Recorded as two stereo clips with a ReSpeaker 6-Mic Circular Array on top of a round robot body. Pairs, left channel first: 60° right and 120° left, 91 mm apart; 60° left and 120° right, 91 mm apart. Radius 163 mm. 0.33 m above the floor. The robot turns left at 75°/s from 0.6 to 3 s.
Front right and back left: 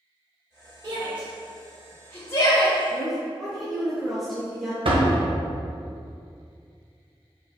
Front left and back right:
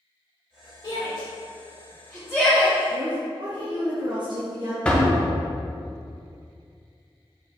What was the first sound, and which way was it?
A shout, 75° left.